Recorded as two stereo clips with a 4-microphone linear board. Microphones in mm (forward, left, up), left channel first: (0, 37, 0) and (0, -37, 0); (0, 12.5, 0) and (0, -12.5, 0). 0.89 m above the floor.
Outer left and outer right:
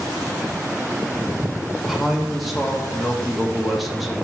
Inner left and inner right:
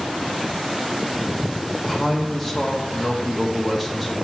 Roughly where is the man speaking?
Centre.